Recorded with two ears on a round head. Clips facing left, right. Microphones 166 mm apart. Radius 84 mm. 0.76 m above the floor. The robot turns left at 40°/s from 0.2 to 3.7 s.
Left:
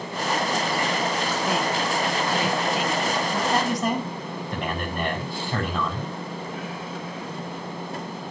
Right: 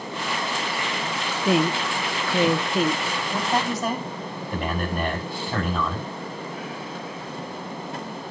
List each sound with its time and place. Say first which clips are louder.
1.4 s a woman speaking: right 7 dB; 55° right (ahead or behind), 0.7 m; by 3.0 s 30° right (ahead or behind), 0.7 m
3.3 s a man speaking: right 2 dB; 15° right (ahead or behind), 6 m; by 6.1 s centre (ahead or behind), 6 m